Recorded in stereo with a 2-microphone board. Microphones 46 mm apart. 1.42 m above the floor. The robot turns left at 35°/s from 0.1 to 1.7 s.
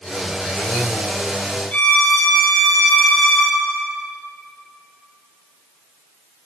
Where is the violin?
35° left (ahead or behind), 2 m.